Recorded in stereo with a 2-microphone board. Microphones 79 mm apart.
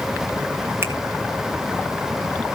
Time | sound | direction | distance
0.8 | a finger snap | 30° right (ahead or behind) | 1.7 m